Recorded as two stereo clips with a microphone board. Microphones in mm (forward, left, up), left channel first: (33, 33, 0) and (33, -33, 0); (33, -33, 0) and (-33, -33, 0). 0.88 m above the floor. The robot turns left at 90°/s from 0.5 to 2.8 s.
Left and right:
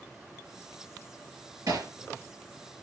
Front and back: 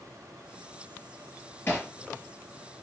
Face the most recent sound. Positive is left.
turn(degrees=-160)